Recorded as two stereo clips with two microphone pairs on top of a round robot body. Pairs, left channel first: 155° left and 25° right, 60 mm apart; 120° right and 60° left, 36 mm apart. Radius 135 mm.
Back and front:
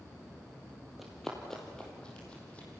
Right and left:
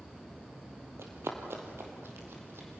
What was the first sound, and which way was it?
Running footsteps, 60° left.